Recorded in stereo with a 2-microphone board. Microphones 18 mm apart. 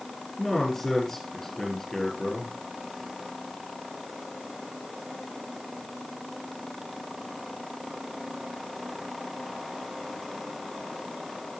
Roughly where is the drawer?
No drawer in this recording.